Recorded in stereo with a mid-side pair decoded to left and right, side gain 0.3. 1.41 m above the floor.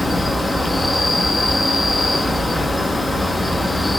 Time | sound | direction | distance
0.0 | an insect | 25° left | 0.8 m